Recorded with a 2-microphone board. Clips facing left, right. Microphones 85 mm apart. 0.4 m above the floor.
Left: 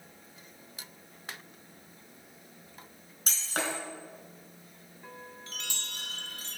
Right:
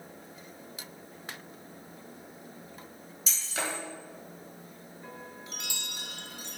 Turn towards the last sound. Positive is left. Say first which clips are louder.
# right 1 dB
turn(degrees=-15)  # may be behind; listen again after turning